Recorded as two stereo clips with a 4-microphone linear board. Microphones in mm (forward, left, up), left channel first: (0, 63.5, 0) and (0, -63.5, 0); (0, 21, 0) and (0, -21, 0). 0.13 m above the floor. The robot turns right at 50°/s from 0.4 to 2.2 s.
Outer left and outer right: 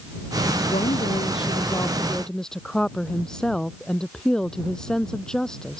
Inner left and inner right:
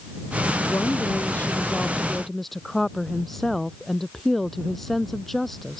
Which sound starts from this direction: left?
A woman speaking, at 0.7 s.